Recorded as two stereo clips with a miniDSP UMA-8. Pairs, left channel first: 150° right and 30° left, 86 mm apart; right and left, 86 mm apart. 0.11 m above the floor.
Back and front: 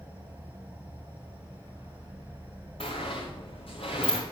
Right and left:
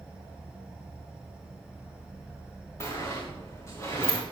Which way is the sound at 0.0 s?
40° right.